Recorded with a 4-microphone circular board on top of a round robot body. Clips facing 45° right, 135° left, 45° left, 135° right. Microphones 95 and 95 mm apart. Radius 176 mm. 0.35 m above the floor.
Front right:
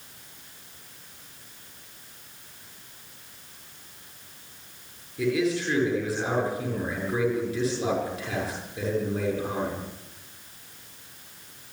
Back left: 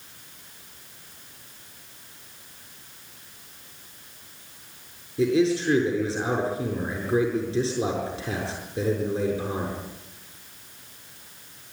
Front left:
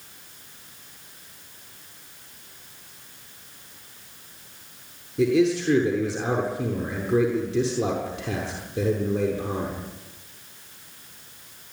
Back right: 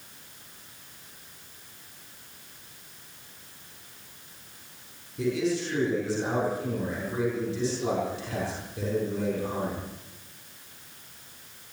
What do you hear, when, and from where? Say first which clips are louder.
5.2 s a man speaking: back left 4 dB, front left 7 dB; 70° left, 7.5 m